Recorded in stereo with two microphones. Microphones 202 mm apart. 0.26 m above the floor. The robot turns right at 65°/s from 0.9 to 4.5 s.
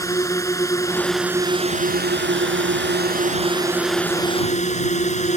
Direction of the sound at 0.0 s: 165° left.